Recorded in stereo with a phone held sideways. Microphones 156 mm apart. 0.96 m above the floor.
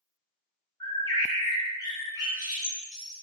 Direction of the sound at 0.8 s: 25° left (ahead or behind).